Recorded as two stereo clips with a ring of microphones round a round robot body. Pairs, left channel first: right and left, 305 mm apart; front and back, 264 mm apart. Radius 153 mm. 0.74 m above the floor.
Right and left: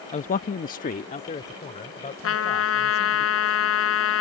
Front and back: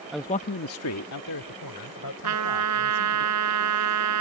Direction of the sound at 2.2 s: 135° right.